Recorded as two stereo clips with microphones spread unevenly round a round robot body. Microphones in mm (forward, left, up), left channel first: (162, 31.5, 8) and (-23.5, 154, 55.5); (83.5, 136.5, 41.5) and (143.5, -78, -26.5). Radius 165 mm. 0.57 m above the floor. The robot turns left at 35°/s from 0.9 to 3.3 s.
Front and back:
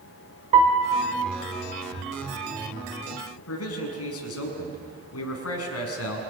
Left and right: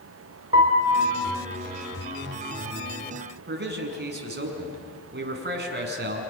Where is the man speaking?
35° right, 5.5 m.